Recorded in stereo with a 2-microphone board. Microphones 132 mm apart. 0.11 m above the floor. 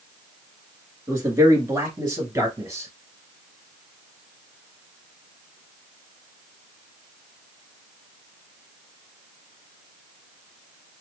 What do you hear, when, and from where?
1.1 s a man speaking: 25° right (ahead or behind), 1.3 m